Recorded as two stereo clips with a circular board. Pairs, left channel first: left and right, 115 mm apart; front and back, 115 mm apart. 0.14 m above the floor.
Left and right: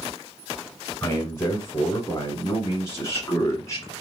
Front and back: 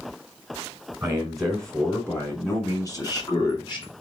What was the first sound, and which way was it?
A man speaking, 115° left.